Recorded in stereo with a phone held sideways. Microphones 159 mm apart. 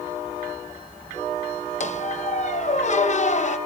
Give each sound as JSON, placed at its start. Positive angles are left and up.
{"t": 1.8, "sound": "a squeak", "side_deg": 50, "distance_m": 0.7}